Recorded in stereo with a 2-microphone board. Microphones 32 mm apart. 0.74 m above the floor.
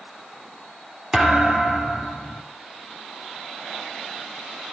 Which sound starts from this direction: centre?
A thud, at 1.1 s.